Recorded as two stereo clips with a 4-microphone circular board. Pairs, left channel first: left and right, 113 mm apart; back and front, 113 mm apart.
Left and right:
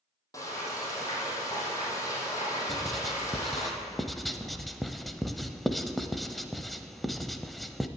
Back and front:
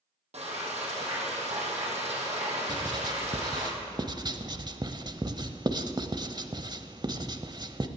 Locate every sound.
0.3 s frying: 25° left, 3.5 m
2.7 s writing: straight ahead, 0.7 m